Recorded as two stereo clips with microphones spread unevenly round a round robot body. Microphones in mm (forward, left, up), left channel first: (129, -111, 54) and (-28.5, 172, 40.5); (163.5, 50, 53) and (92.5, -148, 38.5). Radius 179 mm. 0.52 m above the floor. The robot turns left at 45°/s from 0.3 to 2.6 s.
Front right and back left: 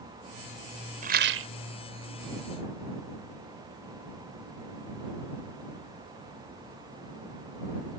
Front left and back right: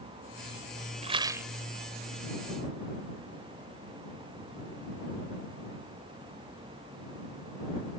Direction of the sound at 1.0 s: 175° right.